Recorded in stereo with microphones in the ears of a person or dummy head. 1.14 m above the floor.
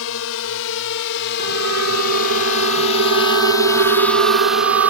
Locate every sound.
0.0 s a drone: 75° left (ahead or behind); by 4.9 s 10° right (ahead or behind)
1.4 s a siren: 75° right (ahead or behind); by 4.9 s 65° right (ahead or behind)